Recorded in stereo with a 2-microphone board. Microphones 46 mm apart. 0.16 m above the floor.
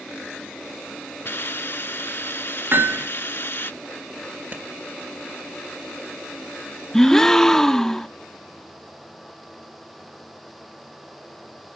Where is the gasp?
10° left (ahead or behind), 0.6 m.